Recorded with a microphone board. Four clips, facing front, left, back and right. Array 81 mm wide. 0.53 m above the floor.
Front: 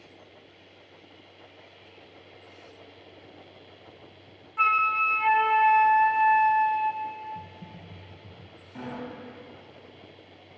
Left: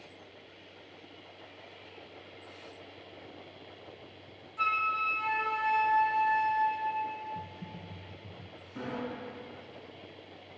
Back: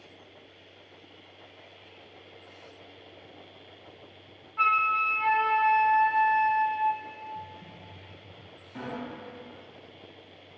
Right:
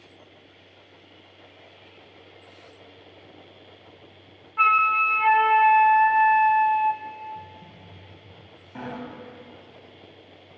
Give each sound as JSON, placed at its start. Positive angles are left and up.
{"t": 4.6, "sound": "a flute", "azimuth_deg": -80, "distance_m": 0.6}
{"t": 7.3, "sound": "typing on a keyboard", "azimuth_deg": 50, "distance_m": 3.0}
{"t": 8.8, "sound": "a sliding door", "azimuth_deg": -95, "distance_m": 3.5}